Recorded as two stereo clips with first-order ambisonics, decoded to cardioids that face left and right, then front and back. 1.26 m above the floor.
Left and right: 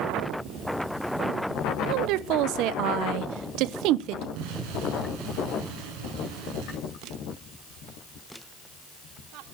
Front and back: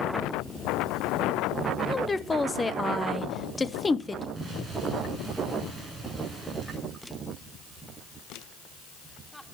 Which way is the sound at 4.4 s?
110° right.